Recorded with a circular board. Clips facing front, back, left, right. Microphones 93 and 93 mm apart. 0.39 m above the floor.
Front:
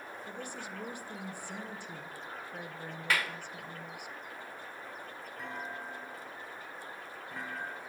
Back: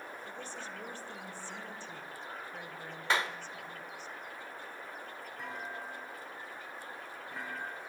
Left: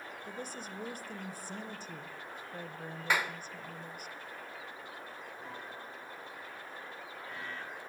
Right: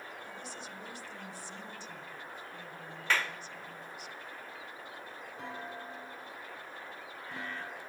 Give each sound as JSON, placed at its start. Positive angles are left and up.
{"t": 0.2, "sound": "a woman speaking", "azimuth_deg": 75, "distance_m": 1.7}
{"t": 3.1, "sound": "a clap", "azimuth_deg": 150, "distance_m": 0.8}
{"t": 5.4, "sound": "a clunk", "azimuth_deg": -90, "distance_m": 5.5}